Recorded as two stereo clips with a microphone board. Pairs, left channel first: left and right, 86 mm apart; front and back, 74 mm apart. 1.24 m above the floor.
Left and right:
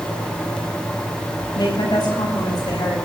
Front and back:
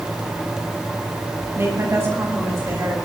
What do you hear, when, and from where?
1.6 s a woman speaking: 130° left, 10 m